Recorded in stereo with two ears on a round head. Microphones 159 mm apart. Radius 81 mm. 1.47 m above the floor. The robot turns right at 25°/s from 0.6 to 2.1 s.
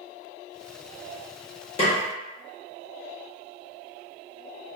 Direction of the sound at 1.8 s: 35° left (ahead or behind).